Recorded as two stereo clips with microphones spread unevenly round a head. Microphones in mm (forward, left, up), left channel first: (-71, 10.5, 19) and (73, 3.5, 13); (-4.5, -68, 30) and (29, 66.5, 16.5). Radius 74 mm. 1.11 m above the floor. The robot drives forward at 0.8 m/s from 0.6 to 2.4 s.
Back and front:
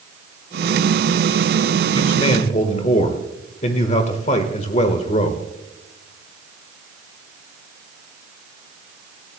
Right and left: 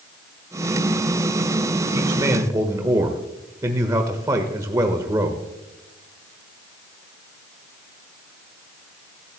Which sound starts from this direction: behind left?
A man speaking, at 1.9 s.